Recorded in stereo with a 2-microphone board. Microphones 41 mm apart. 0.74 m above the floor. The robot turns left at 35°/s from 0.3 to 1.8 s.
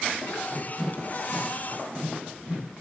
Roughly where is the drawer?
Left.